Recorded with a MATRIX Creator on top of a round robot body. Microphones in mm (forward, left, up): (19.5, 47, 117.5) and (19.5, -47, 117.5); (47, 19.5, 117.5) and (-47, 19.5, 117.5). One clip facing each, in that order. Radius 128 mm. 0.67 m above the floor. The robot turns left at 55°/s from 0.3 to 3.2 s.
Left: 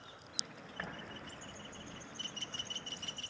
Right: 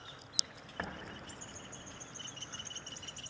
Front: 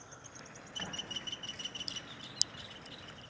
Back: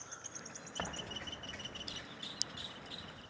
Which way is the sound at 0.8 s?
140° right.